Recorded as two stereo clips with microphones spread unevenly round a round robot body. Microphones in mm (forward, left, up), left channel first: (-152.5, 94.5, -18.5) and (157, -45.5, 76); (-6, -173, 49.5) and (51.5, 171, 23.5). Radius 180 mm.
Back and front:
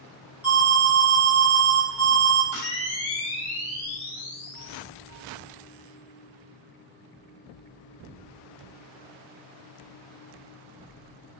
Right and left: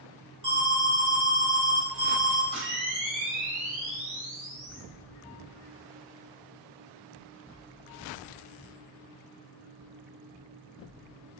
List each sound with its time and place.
0.4 s an alarm: 100° left, 1.2 m
2.5 s a camera shutter: 155° left, 1.2 m